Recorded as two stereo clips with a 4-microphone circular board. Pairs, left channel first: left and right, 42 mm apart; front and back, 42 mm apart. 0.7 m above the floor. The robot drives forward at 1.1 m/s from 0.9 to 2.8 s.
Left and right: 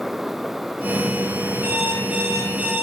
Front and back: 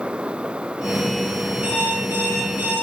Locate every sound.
1.6 s an alarm clock: 135° right, 9.5 m; by 2.8 s 140° right, 10.5 m